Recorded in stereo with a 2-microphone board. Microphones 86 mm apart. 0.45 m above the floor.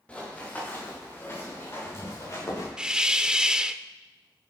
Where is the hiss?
10° right (ahead or behind), 0.5 m.